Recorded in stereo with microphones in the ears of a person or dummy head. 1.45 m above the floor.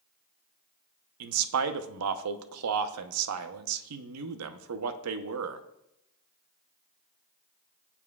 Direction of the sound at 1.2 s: 80° right.